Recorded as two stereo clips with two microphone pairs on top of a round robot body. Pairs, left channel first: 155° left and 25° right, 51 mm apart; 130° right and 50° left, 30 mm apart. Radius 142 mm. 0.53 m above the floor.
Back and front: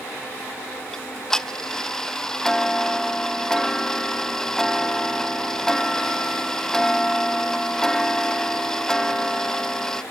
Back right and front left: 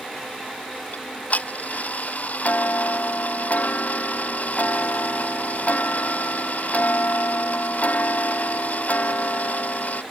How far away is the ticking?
About 0.6 m.